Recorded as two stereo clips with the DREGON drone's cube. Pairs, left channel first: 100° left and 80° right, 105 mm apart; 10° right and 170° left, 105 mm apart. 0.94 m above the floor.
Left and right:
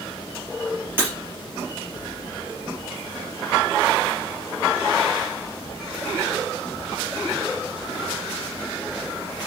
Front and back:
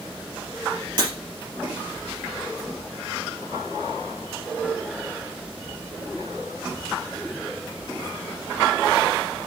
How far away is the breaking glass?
About 4 m.